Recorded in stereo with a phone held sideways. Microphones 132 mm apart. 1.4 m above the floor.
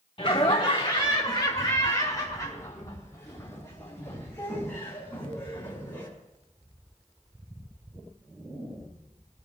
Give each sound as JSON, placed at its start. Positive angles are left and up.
{"t": 0.2, "sound": "laughter", "side_deg": 45, "distance_m": 1.9}